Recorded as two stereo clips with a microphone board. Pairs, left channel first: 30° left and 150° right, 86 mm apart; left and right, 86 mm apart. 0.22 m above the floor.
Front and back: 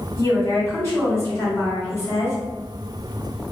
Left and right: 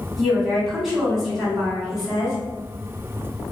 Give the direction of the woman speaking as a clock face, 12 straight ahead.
12 o'clock.